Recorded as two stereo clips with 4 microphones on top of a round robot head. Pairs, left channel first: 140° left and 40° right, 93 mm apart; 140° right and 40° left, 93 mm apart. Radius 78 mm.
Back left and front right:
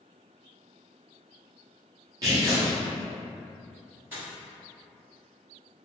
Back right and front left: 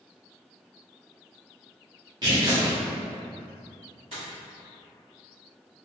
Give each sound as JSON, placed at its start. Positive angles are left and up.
{"t": 2.2, "sound": "tearing paper", "azimuth_deg": 5, "distance_m": 0.8}
{"t": 4.1, "sound": "a dropped coin", "azimuth_deg": 25, "distance_m": 1.2}